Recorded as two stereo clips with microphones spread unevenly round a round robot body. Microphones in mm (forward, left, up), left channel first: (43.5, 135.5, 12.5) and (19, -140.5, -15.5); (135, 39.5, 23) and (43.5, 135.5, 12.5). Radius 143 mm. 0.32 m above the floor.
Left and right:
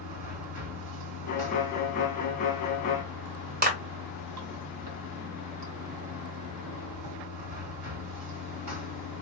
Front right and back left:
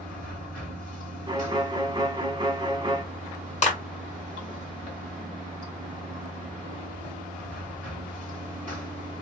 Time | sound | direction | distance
0.0 | running water | 90° right | 1.6 m
1.3 | a violin | 130° left | 1.3 m
3.6 | a clap | 55° right | 1.4 m